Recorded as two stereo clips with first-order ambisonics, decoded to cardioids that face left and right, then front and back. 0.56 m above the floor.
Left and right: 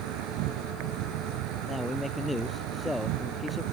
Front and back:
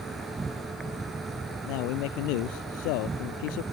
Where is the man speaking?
5° left.